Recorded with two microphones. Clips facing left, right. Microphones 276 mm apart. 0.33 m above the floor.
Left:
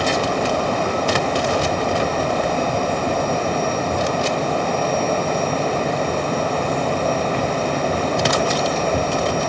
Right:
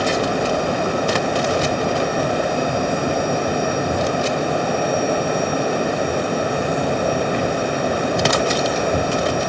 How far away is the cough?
No cough in this recording.